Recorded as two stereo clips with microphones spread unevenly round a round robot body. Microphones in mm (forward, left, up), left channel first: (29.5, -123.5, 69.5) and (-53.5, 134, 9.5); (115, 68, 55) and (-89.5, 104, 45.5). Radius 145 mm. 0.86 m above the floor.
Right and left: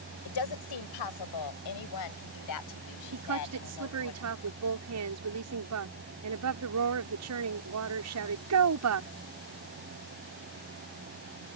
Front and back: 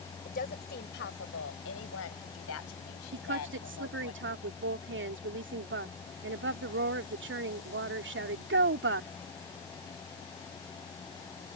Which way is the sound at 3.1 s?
140° left.